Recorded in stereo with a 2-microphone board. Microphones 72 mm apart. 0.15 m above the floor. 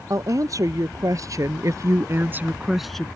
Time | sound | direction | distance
0.1 | a woman speaking | 50° right (ahead or behind) | ?